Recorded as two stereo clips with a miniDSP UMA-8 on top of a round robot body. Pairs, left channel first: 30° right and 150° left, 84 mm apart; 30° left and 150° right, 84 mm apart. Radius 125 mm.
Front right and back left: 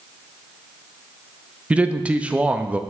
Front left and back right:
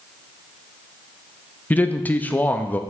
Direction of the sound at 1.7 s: 85° left.